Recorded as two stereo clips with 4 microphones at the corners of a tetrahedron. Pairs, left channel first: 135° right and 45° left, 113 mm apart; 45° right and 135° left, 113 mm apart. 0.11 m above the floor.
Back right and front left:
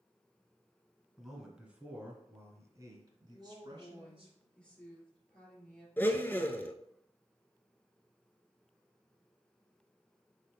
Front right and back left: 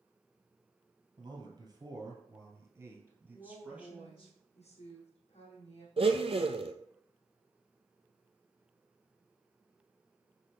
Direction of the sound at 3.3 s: 55° right.